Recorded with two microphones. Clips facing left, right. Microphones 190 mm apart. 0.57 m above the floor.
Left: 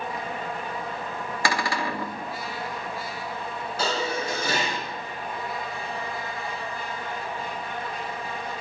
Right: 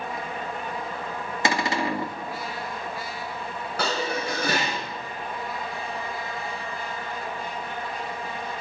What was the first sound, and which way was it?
A cupboard door, 20° right (ahead or behind).